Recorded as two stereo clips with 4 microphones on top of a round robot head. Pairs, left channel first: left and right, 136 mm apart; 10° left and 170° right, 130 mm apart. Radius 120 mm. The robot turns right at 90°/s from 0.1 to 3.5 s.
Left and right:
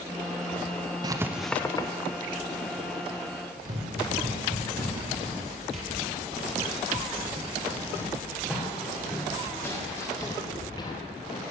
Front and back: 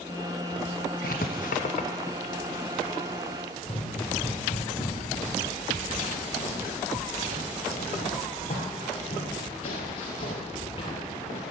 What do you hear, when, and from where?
1.0 s writing: 35° right, 0.6 m; by 1.9 s 40° left, 0.6 m
3.6 s running footsteps: 70° right, 3.5 m; by 11.4 s 50° left, 2.5 m